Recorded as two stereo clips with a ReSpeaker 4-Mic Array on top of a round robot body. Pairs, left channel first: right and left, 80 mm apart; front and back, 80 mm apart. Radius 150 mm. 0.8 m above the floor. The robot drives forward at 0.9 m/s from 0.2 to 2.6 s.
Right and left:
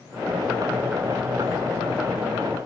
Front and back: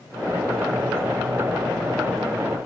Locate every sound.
Only background noise.